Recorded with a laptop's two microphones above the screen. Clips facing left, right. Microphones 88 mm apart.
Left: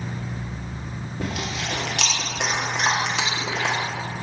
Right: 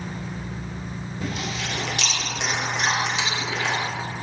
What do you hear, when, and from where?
1.2 s chewing: 65° left (ahead or behind), 1.9 m